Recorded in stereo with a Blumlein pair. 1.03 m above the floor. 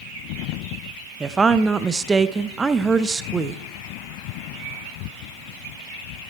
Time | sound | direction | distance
1.2 | a woman speaking | 15° right | 0.5 m